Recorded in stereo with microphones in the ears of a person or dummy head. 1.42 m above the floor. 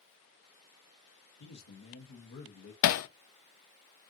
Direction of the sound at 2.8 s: 80° left.